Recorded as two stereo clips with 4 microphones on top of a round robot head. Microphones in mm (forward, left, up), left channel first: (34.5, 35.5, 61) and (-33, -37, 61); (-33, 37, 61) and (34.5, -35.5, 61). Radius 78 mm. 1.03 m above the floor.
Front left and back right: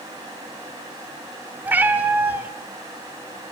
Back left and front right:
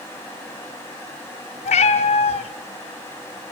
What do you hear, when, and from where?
1.6 s a cat meowing: 155° left, 1.2 m